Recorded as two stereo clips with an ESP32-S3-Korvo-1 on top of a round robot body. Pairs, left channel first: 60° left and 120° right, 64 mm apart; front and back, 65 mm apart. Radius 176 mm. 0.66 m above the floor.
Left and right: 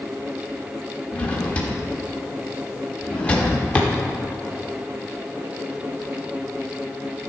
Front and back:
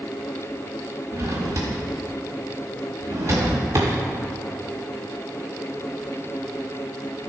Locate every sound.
1.1 s a drawer: 130° left, 0.6 m